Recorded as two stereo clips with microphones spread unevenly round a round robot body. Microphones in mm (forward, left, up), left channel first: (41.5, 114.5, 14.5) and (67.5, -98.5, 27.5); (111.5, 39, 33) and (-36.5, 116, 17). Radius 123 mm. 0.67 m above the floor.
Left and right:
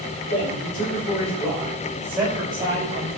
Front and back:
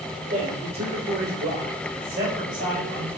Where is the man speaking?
140° left, 3 m; by 3.1 s 150° right, 4.5 m.